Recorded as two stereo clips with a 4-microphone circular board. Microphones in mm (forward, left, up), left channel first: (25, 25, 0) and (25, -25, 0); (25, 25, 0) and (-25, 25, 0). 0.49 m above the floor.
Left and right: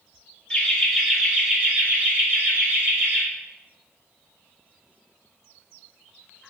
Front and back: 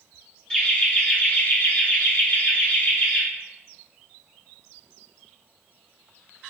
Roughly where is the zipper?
I don't hear a zipper.